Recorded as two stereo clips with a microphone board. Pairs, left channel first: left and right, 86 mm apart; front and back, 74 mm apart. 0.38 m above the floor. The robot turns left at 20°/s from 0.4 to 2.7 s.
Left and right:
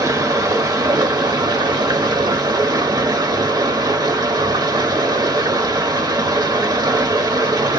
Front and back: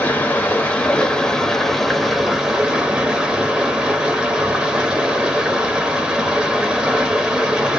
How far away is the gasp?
I don't hear a gasp.